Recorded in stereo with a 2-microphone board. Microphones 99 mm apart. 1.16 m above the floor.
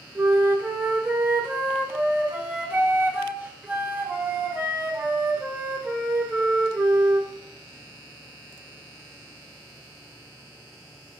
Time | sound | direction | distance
0.1 | a flute | 15° right (ahead or behind) | 0.6 m